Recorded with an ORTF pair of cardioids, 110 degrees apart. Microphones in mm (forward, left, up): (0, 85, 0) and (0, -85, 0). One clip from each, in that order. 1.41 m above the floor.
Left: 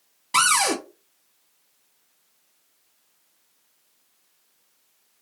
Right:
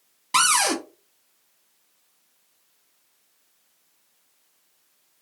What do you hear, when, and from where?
0.3 s a cupboard door: 10° right, 1.0 m